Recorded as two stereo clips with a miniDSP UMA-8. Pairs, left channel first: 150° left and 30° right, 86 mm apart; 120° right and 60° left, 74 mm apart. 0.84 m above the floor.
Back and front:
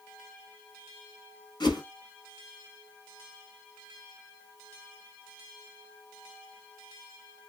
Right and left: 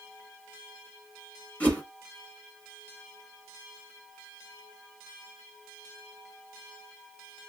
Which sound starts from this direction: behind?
A whoosh, at 1.6 s.